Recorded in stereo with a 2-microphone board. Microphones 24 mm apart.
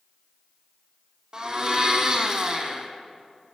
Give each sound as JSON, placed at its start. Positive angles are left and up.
{"t": 1.3, "sound": "a blender", "side_deg": -30, "distance_m": 1.4}